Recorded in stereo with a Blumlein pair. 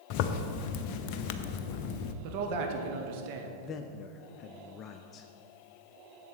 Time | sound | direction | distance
0.1 | a zipper | 45° left | 0.6 m
2.2 | a man speaking | 45° right | 1.5 m
3.6 | a man speaking | 30° left | 0.6 m